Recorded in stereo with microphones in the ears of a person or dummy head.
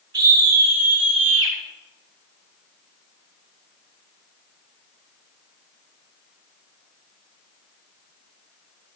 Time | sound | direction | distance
0.1 | a scream | 65° right (ahead or behind) | 4.5 m